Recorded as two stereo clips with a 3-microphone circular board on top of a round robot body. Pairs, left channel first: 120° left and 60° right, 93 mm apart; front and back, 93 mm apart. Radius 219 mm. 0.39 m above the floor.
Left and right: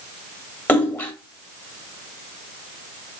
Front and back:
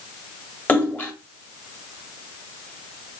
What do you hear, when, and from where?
0.7 s a splash: 65° left, 1.6 m